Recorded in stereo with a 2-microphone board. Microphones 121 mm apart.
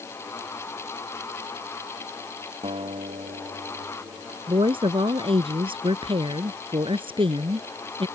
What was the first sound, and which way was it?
A guitar, 55° right (ahead or behind).